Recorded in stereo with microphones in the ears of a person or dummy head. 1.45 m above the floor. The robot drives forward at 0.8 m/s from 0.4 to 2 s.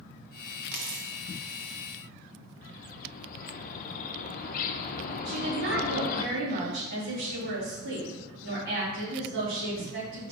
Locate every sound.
0.7 s a dropped coin: 55° right (ahead or behind), 1.4 m; by 1.8 s 40° right (ahead or behind), 1.8 m
2.6 s a bird: 40° left (ahead or behind), 0.8 m
5.2 s a woman speaking: 45° right (ahead or behind), 3 m